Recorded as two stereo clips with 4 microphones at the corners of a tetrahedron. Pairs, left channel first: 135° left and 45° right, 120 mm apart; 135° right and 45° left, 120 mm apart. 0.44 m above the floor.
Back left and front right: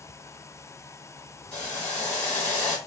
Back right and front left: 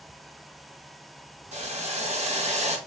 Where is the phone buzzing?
No phone buzzing in this recording.